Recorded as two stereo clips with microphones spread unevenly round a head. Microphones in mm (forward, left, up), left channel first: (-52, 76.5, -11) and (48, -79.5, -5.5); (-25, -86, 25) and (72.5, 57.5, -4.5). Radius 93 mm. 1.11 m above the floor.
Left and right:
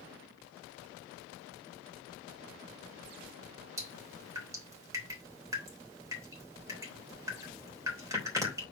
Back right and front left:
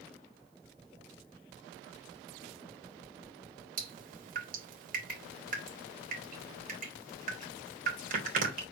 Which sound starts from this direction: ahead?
Dripping, at 3.8 s.